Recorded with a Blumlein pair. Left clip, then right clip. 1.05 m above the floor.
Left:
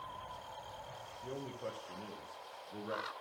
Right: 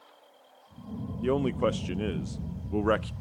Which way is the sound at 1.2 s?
50° right.